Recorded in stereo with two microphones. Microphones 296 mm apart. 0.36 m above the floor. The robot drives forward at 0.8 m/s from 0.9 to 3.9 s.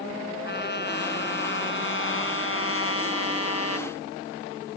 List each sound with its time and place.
0.5 s a trumpet: 35° left (ahead or behind); by 3.9 s 60° left (ahead or behind)